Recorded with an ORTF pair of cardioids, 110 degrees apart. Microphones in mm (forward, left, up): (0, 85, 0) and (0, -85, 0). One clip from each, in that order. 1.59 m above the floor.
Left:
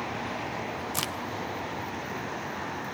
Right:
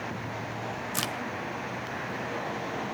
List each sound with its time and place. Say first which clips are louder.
0.9 s a crack: right 1 dB; straight ahead, 0.9 m